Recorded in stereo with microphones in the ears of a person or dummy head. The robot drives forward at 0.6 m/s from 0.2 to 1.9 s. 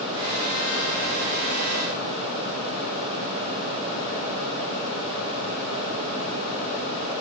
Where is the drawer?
I don't hear a drawer.